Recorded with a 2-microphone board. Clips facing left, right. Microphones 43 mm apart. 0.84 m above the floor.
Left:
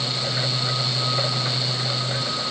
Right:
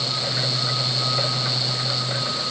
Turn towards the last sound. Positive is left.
No sound to turn to.